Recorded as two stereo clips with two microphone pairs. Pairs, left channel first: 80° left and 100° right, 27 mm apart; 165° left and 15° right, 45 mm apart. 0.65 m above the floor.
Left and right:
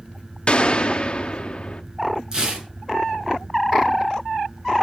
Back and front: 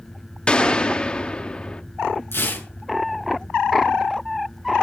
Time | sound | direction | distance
0.5 | a gunshot | 105° left | 0.7 m
2.3 | tearing paper | 165° right | 6.5 m